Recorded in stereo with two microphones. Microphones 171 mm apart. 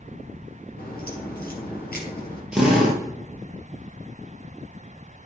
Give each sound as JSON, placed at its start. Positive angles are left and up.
{"t": 0.8, "sound": "a crack", "side_deg": 60, "distance_m": 3.0}
{"t": 2.5, "sound": "a drill", "side_deg": -5, "distance_m": 3.0}